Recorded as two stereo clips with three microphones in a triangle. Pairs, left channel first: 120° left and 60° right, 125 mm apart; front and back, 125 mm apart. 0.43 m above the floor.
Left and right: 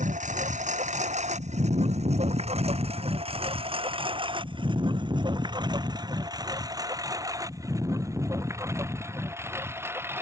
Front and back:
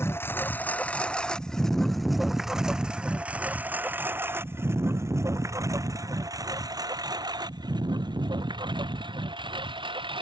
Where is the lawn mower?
70° right; by 10.2 s 135° right.